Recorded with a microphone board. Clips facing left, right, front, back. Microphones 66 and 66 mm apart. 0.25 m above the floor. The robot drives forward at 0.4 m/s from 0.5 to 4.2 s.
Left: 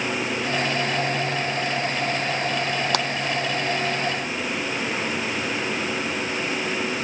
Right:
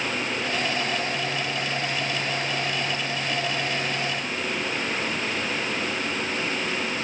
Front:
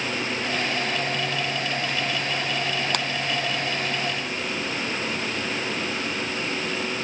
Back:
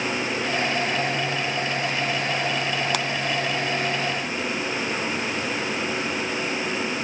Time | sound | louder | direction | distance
2.9 | a clap | left 6 dB, back 1 dB | 90° left | ?